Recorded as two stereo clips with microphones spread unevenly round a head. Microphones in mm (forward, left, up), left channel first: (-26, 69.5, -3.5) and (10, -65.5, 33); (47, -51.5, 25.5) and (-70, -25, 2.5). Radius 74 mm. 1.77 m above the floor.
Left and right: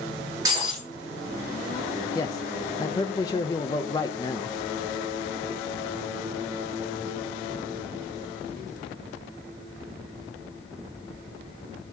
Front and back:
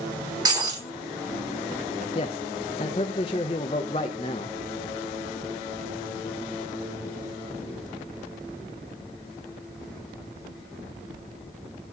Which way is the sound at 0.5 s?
130° right.